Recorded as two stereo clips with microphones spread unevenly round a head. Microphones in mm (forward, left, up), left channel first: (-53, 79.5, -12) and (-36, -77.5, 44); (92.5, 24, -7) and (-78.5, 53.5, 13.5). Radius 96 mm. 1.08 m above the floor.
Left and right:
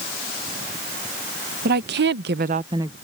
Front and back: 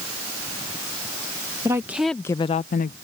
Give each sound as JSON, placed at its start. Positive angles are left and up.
{"t": 1.6, "sound": "a woman speaking", "azimuth_deg": -110}